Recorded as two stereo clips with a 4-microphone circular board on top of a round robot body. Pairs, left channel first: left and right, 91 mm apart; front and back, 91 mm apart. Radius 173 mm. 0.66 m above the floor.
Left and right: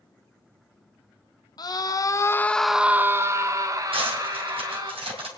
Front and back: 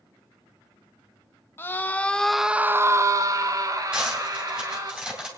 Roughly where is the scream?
Ahead left.